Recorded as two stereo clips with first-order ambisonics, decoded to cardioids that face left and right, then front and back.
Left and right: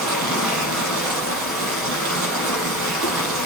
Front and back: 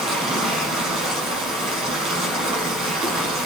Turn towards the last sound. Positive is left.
turn(degrees=-115)